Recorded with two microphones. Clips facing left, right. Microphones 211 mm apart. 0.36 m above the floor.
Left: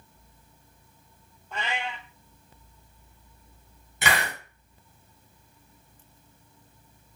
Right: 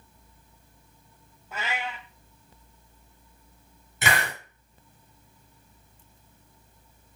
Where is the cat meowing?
5° right (ahead or behind), 0.6 m.